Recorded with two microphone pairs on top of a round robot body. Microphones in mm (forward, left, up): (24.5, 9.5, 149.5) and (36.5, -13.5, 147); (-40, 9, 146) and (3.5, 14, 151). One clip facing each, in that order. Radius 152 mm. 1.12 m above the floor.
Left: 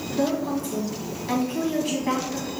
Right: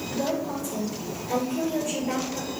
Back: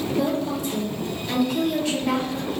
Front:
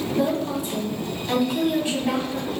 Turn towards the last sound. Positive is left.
turn(degrees=95)